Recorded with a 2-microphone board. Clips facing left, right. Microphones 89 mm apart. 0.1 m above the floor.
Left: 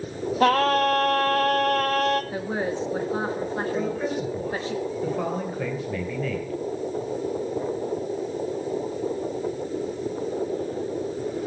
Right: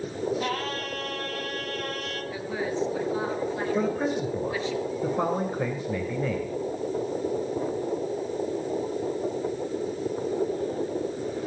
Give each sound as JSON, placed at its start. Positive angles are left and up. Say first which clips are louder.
{"t": 0.4, "sound": "singing", "louder": "left 11 dB", "side_deg": 65, "distance_m": 0.8}
{"t": 2.3, "sound": "a woman speaking", "louder": "left 3 dB", "side_deg": 40, "distance_m": 1.5}
{"t": 3.8, "sound": "a man speaking", "louder": "right 1 dB", "side_deg": -20, "distance_m": 2.5}